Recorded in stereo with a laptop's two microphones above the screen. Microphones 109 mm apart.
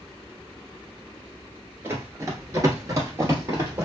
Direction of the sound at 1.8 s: 25° right (ahead or behind).